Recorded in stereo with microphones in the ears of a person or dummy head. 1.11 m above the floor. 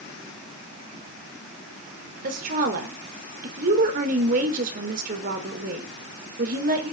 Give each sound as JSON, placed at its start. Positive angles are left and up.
{"t": 2.2, "sound": "a woman speaking", "side_deg": -50, "distance_m": 4.5}